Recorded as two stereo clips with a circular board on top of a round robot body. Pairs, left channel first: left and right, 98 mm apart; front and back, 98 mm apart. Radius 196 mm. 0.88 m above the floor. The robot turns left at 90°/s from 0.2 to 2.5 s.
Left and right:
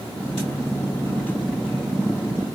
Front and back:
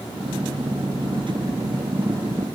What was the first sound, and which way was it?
Only background noise.